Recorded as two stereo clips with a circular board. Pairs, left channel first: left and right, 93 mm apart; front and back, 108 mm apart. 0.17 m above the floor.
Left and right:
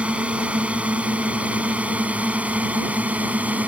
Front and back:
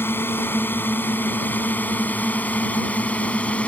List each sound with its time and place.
0.0 s a drone: 35° right; by 3.7 s 55° right